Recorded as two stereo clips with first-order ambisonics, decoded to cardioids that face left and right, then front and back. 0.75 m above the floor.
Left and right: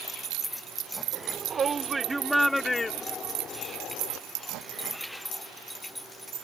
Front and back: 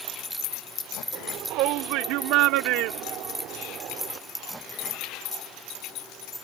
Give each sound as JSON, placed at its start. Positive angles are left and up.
{"t": 1.1, "sound": "a shout", "azimuth_deg": -145}